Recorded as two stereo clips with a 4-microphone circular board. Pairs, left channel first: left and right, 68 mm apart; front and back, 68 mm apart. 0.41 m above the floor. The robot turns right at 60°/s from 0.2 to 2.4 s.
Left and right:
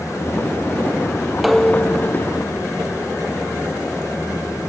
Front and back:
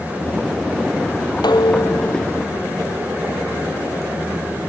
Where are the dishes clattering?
5° right; by 2.9 s 55° left.